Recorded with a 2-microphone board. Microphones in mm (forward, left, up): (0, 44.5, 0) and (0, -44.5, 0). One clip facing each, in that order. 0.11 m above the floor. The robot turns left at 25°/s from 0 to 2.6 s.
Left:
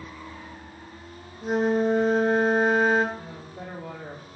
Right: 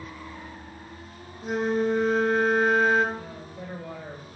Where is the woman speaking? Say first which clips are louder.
Right 1 dB; 50° left (ahead or behind), 4.5 m.